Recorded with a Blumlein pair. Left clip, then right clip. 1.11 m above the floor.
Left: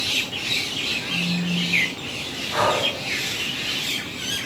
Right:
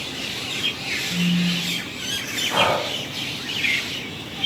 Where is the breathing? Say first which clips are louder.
Even; 55° right, 1.9 m.